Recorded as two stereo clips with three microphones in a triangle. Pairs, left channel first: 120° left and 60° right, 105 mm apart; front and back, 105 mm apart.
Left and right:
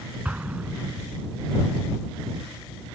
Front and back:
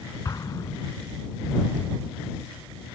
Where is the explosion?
5° left.